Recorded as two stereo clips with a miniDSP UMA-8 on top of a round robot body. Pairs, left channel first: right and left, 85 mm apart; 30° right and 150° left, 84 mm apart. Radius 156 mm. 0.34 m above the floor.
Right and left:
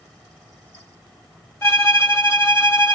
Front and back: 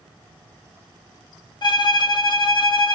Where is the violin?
35° right, 1.0 m.